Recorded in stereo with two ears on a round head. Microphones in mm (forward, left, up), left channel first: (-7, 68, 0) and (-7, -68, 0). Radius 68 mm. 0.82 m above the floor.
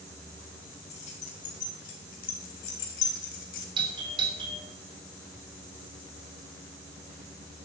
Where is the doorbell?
35° right (ahead or behind), 3.5 m.